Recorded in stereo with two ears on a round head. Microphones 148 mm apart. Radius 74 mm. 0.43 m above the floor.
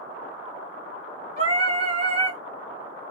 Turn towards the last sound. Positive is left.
turn(degrees=-35)  # may be behind; listen again after turning